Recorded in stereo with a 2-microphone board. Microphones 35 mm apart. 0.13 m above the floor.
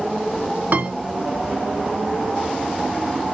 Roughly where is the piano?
Right.